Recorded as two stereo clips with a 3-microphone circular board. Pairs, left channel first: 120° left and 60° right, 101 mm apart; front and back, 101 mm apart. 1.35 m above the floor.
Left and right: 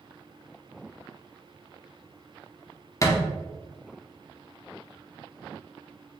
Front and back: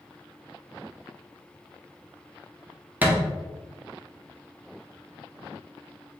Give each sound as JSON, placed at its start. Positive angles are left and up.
{"t": 3.0, "sound": "a thud", "azimuth_deg": 125, "distance_m": 0.7}